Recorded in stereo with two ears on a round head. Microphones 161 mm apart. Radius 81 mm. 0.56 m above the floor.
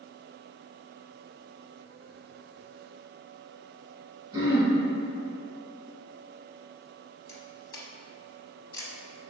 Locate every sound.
4.3 s throat clearing: 25° right (ahead or behind), 0.9 m
7.3 s a camera shutter: 20° left (ahead or behind), 0.7 m